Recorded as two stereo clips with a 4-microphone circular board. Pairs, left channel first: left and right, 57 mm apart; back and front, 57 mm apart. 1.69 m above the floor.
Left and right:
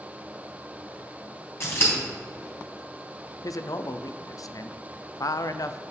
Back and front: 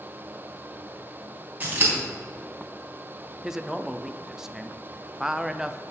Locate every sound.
1.6 s scissors: 55° left, 4 m
3.4 s a man speaking: 80° left, 0.6 m